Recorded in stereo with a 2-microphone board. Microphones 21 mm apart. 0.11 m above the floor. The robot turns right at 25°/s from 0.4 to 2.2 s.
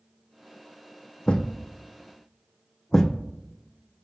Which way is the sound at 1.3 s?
50° left (ahead or behind).